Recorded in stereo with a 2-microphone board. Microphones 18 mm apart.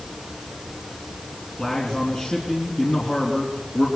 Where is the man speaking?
35° left (ahead or behind), 4 m.